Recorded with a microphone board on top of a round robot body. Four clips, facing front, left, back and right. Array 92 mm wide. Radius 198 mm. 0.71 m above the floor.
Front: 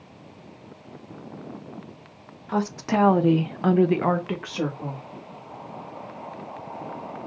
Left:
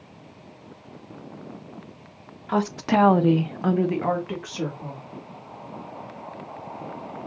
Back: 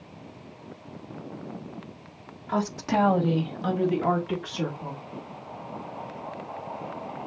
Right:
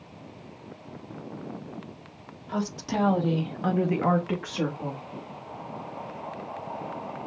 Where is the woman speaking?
95° left, 1.4 m; by 5.0 s 40° right, 1.9 m.